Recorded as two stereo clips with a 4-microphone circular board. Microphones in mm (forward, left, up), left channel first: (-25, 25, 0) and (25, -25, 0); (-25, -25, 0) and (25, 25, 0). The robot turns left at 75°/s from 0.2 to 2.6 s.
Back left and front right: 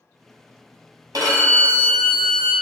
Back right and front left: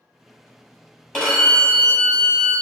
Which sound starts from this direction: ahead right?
A violin, at 1.1 s.